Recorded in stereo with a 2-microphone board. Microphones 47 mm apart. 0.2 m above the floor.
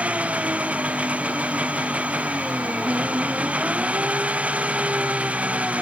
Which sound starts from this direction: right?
An engine running, at 0.0 s.